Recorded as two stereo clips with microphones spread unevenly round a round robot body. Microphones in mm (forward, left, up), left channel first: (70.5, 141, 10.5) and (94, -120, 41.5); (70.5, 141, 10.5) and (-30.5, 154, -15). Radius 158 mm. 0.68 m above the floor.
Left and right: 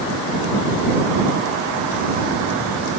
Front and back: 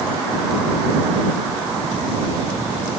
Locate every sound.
Only background noise.